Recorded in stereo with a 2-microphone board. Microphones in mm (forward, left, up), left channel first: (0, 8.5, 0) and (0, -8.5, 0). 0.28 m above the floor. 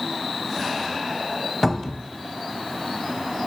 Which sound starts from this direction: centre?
A cupboard door, at 1.6 s.